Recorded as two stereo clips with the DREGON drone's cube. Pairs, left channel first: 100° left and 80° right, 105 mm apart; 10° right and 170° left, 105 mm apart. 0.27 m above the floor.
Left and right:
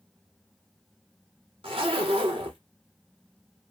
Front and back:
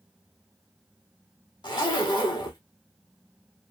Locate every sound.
1.6 s a zipper: 55° right, 1.0 m